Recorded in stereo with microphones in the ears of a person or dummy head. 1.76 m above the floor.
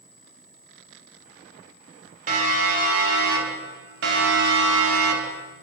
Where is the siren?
50° right (ahead or behind), 7.5 m; by 5.5 s 80° right, 4.5 m.